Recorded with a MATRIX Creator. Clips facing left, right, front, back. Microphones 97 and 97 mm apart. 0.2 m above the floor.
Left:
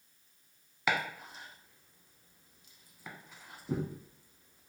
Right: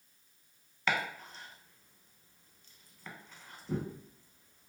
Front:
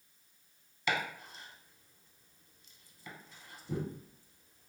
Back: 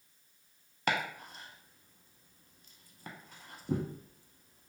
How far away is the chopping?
About 0.5 m.